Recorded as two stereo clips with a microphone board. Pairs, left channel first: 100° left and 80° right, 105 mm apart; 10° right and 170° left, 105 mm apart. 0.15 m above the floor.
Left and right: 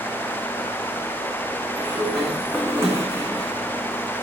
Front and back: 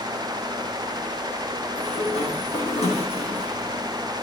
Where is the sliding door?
15° right, 4 m.